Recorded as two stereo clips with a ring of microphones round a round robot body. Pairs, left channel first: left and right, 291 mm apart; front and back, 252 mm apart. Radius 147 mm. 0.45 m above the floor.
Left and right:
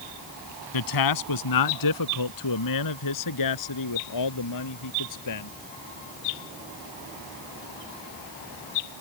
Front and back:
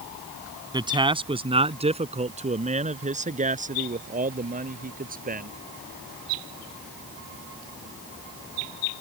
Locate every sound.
0.7 s a man speaking: 105° left; by 5.5 s 120° left